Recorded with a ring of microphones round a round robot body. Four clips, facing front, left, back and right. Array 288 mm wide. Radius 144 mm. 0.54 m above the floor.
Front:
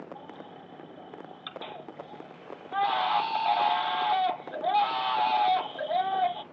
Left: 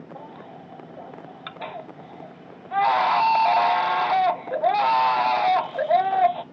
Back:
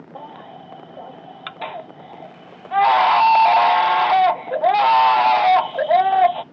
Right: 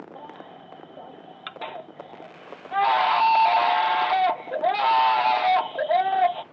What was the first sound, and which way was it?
A baby crying, 175° left.